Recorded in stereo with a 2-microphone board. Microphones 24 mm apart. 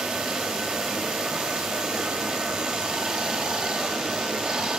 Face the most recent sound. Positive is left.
turn(degrees=-30)  # may be behind; listen again after turning